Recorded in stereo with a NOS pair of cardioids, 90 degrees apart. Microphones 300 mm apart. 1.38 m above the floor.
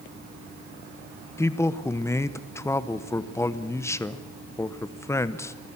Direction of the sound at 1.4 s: 10° left.